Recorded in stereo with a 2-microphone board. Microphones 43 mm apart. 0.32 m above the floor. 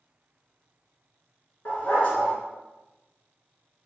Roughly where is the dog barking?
Left.